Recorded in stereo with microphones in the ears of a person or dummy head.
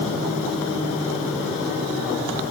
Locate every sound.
Only background noise.